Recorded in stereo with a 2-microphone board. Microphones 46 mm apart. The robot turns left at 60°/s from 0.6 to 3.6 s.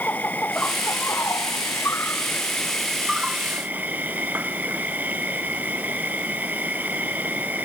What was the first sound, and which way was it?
An insect, 145° left.